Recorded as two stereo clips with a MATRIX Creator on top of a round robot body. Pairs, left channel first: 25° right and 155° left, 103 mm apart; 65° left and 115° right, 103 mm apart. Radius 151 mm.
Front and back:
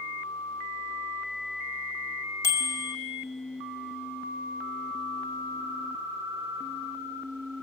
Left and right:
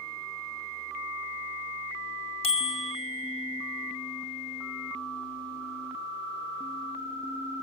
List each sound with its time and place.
2.4 s a bicycle bell: 45° left, 2.5 m